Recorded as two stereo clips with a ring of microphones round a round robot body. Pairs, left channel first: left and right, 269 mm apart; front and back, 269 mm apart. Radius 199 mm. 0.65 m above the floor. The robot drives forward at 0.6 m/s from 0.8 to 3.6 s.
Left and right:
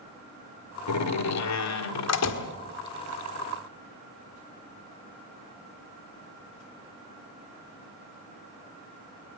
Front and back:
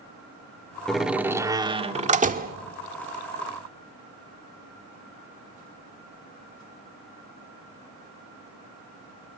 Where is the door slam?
90° left, 1.6 m; by 2.5 s 125° left, 1.8 m.